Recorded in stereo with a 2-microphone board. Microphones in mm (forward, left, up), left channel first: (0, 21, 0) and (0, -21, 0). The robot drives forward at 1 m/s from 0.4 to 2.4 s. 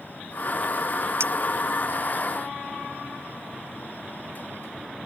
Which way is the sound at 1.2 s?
80° right.